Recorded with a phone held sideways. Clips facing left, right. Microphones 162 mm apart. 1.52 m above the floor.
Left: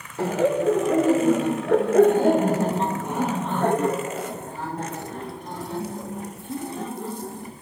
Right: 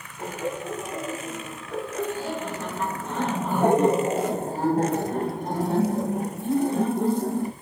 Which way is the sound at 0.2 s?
85° left.